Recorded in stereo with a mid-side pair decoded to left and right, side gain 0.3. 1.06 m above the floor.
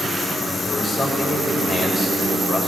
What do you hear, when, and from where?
0.7 s a man speaking: 65° left, 5 m